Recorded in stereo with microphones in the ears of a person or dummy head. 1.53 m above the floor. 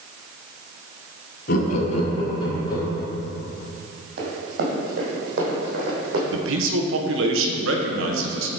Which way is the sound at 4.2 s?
60° right (ahead or behind).